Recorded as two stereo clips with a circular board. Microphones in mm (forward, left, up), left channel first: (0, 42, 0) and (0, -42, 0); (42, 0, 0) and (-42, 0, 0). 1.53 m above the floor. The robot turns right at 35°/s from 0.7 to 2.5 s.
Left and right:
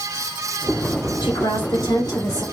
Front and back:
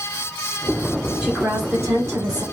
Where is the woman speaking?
100° left, 2.5 m; by 2.4 s 140° left, 2.5 m.